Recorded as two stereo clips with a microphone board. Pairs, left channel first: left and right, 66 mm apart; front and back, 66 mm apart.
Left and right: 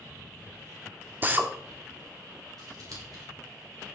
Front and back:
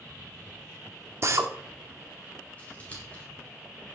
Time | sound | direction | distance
1.2 | a drill | 145° right | 1.1 m
2.6 | scissors | 65° right | 4 m